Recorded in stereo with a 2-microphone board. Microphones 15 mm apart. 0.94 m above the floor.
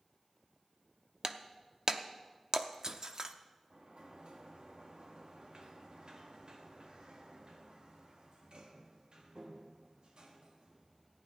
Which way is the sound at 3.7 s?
75° right (ahead or behind).